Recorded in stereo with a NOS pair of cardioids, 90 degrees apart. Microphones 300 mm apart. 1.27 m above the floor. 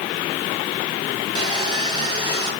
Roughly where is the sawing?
Ahead.